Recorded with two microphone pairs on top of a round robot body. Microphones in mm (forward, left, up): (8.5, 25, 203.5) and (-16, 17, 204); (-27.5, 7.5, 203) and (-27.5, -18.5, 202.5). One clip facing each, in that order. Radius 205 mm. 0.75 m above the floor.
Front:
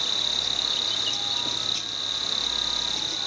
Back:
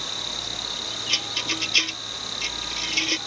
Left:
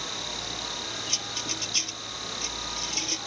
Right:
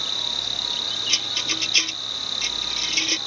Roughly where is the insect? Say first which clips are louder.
Front 4 dB, right 8 dB; ahead right.